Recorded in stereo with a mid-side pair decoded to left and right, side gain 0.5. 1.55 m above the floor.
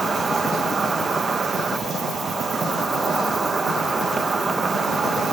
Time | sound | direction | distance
0.0 | an insect | 30° right | ?